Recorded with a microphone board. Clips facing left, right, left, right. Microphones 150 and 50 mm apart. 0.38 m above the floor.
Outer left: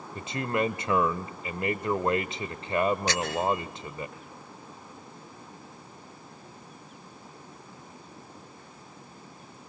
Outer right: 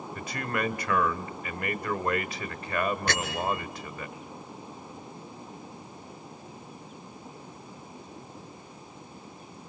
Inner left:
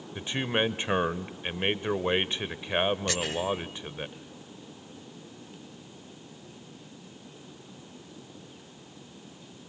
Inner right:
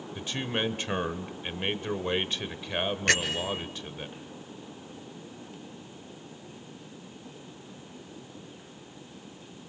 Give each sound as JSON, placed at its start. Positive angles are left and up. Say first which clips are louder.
{"t": 0.1, "sound": "a man speaking", "louder": "outer left 4 dB, inner left 3 dB", "side_deg": 25, "distance_m": 1.1}
{"t": 3.1, "sound": "a bell", "louder": "outer left 3 dB, inner right 2 dB", "side_deg": -60, "distance_m": 3.0}